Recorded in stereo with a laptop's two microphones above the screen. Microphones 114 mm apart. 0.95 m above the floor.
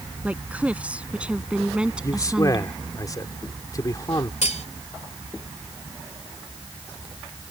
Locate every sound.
0.2 s a woman speaking: 10° right (ahead or behind); by 2.8 s 5° right (ahead or behind)
2.0 s a man speaking: 30° left (ahead or behind)
4.4 s cutlery clinking: 80° left